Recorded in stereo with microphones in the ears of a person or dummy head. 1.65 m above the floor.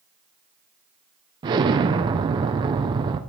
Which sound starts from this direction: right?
An explosion, at 1.4 s.